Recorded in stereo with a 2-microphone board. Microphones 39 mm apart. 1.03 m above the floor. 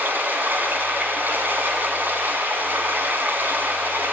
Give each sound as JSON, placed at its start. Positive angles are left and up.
{"t": 0.0, "sound": "running water", "side_deg": -50, "distance_m": 3.0}